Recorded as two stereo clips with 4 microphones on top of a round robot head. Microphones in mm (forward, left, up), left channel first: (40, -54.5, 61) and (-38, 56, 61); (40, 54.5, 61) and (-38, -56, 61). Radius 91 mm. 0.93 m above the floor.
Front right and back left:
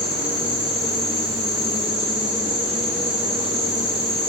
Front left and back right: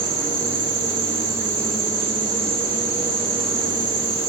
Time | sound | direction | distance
0.0 | an insect | 165° left | 6.5 m